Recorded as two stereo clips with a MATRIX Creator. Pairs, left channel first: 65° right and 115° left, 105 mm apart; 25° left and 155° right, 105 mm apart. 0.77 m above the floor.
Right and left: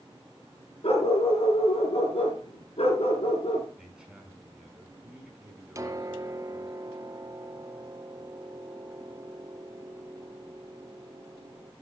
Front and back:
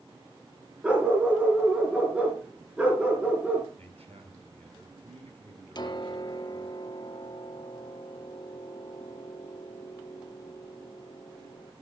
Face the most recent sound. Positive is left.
turn(degrees=60)